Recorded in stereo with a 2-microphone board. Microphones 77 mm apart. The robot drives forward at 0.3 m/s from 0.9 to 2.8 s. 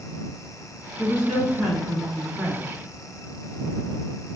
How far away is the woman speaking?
About 1.9 m.